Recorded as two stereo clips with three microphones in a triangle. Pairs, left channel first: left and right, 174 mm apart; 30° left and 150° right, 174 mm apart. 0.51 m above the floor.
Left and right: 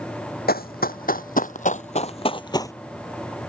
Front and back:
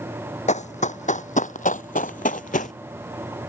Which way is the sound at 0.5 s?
70° left.